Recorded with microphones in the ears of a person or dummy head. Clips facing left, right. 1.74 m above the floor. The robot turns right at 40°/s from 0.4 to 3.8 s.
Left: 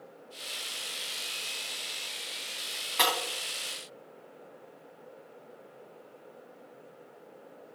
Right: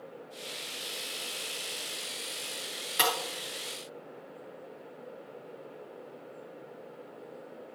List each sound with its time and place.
3.0 s breaking glass: 10° right (ahead or behind), 4 m; by 3.1 s 5° right (ahead or behind), 4 m